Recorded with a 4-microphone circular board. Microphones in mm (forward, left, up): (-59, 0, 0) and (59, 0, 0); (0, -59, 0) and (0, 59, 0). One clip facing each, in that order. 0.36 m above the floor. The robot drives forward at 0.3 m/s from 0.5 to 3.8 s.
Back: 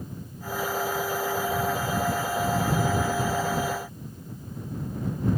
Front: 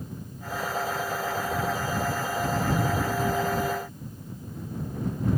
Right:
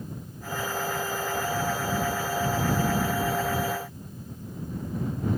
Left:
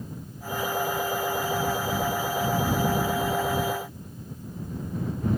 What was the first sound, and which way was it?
Only background noise.